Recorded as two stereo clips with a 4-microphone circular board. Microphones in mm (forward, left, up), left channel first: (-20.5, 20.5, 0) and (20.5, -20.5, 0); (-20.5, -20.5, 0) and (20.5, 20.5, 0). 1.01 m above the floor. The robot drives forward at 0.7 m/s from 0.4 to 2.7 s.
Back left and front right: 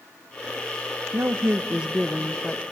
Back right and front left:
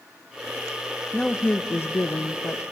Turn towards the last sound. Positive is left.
turn(degrees=-155)